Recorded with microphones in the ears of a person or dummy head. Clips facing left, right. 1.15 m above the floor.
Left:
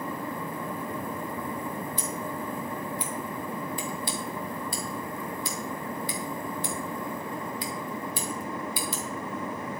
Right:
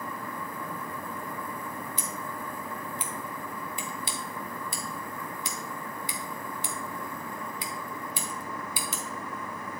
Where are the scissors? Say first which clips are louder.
Left 4 dB; 20° right (ahead or behind), 1.4 m.